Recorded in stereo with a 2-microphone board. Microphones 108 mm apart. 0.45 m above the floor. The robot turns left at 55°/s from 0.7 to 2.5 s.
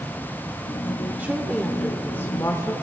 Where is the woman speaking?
155° right, 0.9 m; by 2.8 s 130° left, 0.9 m.